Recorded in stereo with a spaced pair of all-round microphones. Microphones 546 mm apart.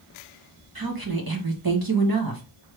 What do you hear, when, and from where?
0.8 s a woman speaking: 40° right (ahead or behind), 1.4 m